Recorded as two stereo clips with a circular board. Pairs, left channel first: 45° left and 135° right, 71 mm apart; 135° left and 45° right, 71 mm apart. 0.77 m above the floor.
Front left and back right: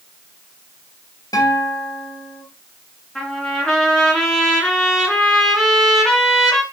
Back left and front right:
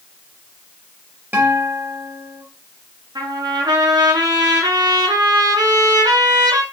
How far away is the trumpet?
About 2.5 m.